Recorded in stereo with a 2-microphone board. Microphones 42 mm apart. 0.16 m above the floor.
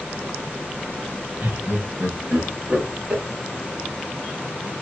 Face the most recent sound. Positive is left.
turn(degrees=-35)  # may be behind; listen again after turning